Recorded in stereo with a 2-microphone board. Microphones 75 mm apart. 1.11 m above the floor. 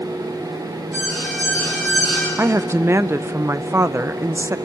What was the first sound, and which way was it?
An alarm, 15° right (ahead or behind).